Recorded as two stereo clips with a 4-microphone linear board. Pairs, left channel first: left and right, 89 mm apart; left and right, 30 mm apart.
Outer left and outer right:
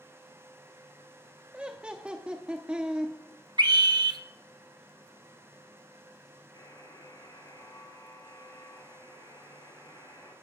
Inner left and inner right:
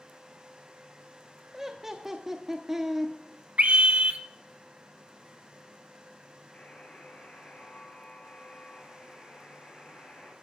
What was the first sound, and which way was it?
Laughter, 10° right (ahead or behind).